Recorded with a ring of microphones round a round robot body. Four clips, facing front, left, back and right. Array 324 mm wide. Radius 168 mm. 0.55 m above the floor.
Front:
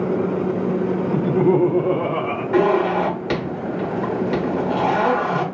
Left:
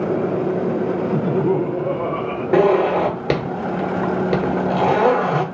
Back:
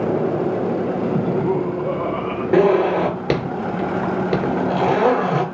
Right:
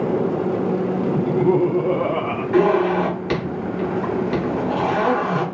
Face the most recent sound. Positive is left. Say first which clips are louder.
# left 2 dB, back 2 dB
turn(degrees=135)